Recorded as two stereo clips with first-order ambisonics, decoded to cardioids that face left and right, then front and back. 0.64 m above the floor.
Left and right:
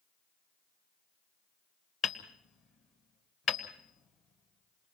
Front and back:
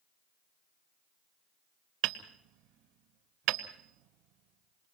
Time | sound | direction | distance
2.0 | hammering | 150° left | 1.6 m